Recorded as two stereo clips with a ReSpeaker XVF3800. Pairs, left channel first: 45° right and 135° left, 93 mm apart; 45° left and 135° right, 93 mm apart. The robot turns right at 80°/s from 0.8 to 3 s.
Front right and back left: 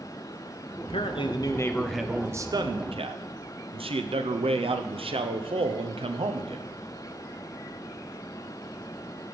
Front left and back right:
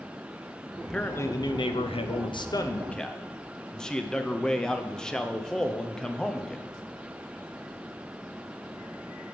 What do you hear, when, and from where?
0.8 s a man speaking: 45° right, 0.7 m; by 6.7 s 130° left, 0.7 m